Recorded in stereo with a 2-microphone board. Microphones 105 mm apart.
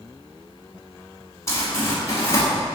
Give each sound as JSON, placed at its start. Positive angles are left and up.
{"t": 1.5, "sound": "crumpling", "side_deg": 30, "distance_m": 1.4}